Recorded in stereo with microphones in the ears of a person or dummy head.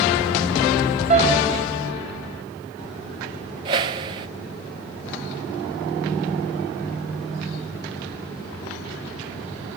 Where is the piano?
45° right (ahead or behind), 5 m.